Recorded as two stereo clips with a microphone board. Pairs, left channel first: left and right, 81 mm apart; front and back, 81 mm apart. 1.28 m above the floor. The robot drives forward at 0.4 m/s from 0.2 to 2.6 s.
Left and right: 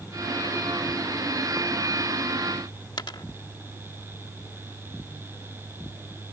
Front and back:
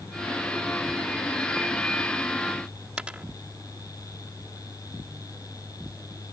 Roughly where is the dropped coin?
Left.